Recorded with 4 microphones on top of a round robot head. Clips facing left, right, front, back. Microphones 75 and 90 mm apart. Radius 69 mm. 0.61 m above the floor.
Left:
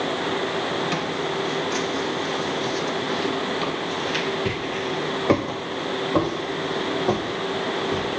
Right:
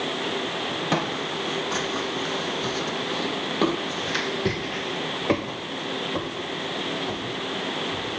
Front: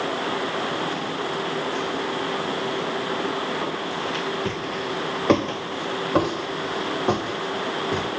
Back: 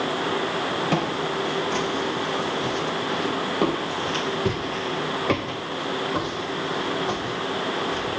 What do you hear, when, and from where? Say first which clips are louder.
0.9 s footsteps: left 1 dB, back 3 dB; 140° right, 2.5 m; by 8.1 s 40° left, 2 m